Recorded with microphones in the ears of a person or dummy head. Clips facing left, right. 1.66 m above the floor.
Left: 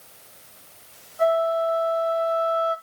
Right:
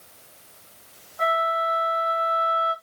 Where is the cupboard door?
No cupboard door in this recording.